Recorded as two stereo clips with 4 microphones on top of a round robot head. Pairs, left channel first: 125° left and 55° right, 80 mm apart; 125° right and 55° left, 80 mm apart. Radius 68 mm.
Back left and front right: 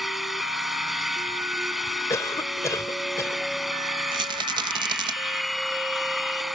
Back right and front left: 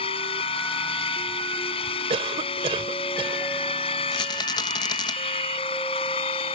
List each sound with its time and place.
0.0 s an engine running: 145° right
2.1 s a cough: 70° left
4.1 s a rattle: 90° right